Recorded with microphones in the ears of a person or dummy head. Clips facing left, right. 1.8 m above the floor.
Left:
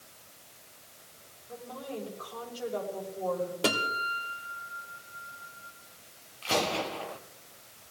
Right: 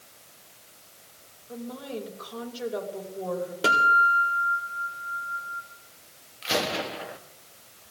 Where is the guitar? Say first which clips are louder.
Right 4 dB; 5° right (ahead or behind), 3 m.